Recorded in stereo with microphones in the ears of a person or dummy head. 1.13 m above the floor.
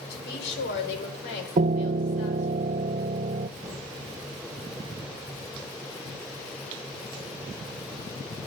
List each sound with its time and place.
0.1 s a woman speaking: 70° left (ahead or behind), 4 m; by 2.6 s 80° left, 5 m
1.6 s a piano: 35° right (ahead or behind), 0.6 m
3.6 s knocking: 5° right (ahead or behind), 8.5 m